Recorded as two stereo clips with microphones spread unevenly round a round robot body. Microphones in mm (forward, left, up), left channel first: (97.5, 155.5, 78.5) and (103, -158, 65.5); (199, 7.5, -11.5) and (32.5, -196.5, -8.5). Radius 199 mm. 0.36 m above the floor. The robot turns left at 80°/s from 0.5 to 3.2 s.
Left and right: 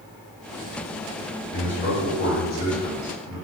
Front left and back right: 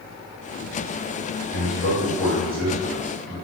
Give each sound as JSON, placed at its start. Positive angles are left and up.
{"t": 1.5, "sound": "a man speaking", "azimuth_deg": 130, "distance_m": 1.7}